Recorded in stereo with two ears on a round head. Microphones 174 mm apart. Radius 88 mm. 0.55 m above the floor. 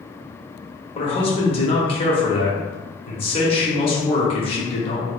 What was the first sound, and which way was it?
A man speaking, 30° left (ahead or behind).